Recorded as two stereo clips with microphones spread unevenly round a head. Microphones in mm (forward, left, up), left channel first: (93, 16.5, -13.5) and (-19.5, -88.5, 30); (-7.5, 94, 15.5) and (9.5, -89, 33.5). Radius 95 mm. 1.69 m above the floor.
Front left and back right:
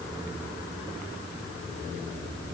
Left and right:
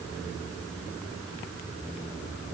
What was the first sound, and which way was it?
Only background noise.